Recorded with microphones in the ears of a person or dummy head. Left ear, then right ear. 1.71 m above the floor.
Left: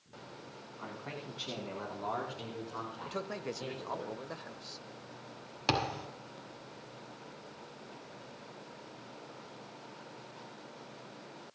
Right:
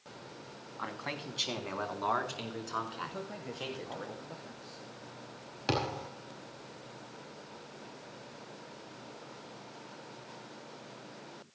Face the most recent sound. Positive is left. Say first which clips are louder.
# left 1 dB
turn(degrees=30)  # may be behind; listen again after turning